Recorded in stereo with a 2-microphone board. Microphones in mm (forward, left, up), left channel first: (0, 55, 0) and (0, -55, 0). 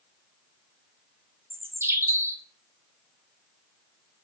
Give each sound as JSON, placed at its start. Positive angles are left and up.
{"t": 1.5, "sound": "a bird", "side_deg": -20, "distance_m": 1.1}